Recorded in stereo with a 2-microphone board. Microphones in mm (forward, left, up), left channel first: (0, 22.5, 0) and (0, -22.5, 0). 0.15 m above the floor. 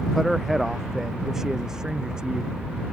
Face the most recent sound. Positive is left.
turn(degrees=-15)  # may be behind; listen again after turning